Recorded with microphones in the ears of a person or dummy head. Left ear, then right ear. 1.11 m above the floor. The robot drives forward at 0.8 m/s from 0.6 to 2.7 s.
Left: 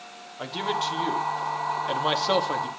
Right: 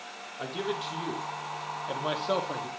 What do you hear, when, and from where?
0.4 s a man speaking: 25° left (ahead or behind), 3.5 m; by 2.7 s 45° left (ahead or behind), 2 m